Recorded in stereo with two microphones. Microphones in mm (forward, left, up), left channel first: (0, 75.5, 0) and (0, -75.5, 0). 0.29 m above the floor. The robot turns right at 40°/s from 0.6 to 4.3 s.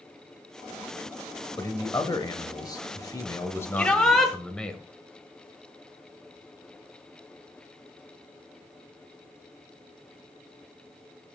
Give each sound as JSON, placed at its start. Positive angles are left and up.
{"t": 1.6, "sound": "a man speaking", "side_deg": 25, "distance_m": 0.9}
{"t": 3.8, "sound": "a shout", "side_deg": 10, "distance_m": 1.5}